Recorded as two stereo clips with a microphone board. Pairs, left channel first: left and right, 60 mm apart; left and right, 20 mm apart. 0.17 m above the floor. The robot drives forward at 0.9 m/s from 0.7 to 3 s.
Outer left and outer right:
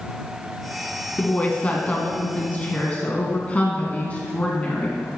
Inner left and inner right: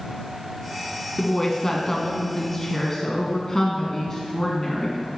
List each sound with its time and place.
1.2 s a woman speaking: 20° left (ahead or behind), 1.7 m; by 5.1 s 25° left (ahead or behind), 1.6 m